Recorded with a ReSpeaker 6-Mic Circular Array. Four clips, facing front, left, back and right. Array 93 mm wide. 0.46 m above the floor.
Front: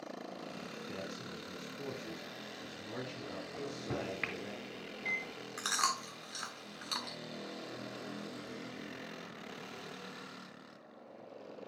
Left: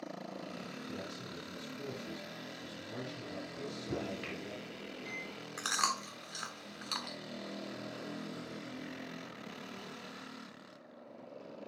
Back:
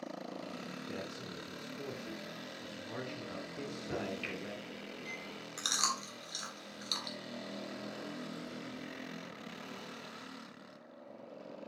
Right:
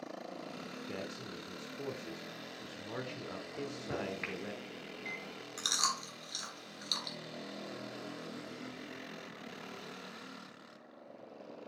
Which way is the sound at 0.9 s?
95° right.